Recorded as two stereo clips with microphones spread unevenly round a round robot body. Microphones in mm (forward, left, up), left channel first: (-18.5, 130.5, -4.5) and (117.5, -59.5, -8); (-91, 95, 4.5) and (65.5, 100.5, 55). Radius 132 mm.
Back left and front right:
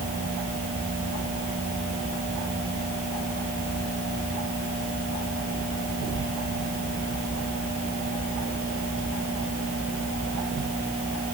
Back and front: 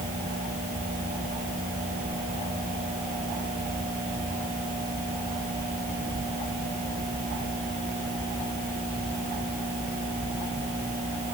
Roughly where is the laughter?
No laughter in this recording.